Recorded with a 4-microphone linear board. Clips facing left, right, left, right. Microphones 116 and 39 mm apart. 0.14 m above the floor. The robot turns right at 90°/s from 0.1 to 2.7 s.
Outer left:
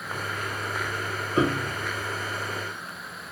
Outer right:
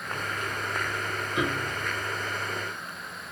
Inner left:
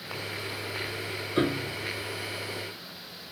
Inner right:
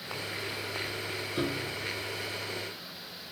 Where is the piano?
130° left, 1.0 m; by 1.9 s 175° left, 1.0 m.